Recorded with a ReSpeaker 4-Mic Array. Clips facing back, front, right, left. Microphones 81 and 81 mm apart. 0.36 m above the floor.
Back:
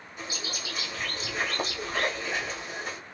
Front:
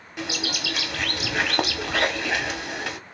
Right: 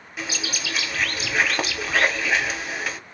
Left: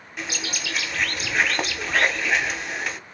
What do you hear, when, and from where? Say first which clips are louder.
0.2 s a bird: front 8 dB, right 1 dB; 5° right, 1.0 m